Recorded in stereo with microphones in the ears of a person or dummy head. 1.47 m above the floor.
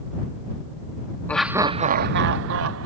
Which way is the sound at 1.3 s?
10° left (ahead or behind).